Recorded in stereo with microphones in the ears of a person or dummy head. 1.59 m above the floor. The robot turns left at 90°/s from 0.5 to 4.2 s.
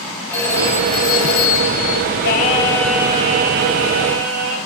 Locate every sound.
0.3 s a phone ringing: 165° left, 8 m; by 2.0 s 30° left, 8 m
2.2 s singing: 60° left, 3.5 m; by 4.6 s 120° right, 3.5 m